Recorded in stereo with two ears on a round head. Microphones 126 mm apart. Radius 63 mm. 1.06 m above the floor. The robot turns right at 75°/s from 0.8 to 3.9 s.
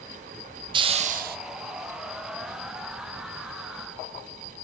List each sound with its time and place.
0.7 s a hiss: 145° right, 0.5 m; by 1.4 s 100° right, 0.5 m